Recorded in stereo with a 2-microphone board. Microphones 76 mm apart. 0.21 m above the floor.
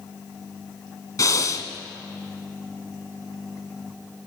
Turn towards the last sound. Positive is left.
turn(degrees=50)  # may be behind; listen again after turning